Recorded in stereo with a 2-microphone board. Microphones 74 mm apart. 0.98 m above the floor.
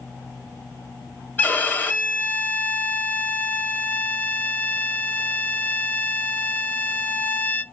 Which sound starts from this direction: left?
A violin, at 1.4 s.